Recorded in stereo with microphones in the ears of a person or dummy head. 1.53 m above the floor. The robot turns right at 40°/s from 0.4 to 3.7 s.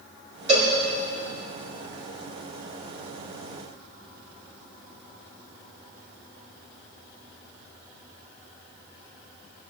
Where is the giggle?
No giggle in this recording.